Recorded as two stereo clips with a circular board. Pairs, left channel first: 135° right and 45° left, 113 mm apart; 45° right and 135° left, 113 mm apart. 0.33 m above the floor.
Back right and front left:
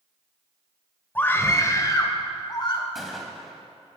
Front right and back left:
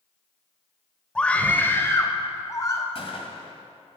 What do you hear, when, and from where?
1.1 s a scream: 110° right, 1.0 m; by 2.9 s 100° right, 1.8 m
3.0 s a gunshot: 45° right, 2.0 m